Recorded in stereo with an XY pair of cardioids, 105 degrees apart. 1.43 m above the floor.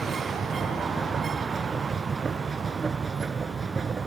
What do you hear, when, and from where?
0.0 s a machine running: 40° right